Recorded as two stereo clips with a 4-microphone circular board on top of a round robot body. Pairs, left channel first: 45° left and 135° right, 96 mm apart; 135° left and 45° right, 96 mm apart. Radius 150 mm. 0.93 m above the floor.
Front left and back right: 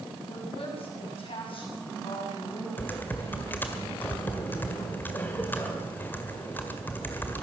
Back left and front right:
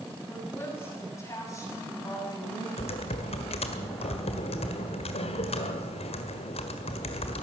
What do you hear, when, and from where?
0.3 s a woman speaking: 65° left, 7.5 m; by 2.7 s 85° left, 8.5 m
2.8 s typing on a keyboard: 115° left, 1.7 m